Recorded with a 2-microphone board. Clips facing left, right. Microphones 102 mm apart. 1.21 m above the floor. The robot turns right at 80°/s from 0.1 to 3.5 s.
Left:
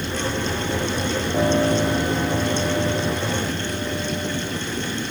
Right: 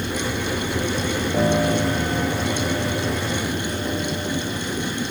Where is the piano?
Straight ahead, 7.5 m; by 4.5 s 170° left, 7.5 m.